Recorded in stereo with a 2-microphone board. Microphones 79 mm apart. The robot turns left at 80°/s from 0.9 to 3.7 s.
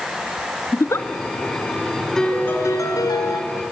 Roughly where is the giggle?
Left.